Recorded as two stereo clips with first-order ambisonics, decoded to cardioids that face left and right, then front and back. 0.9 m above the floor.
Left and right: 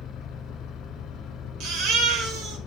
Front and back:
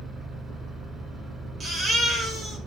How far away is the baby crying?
About 1.1 m.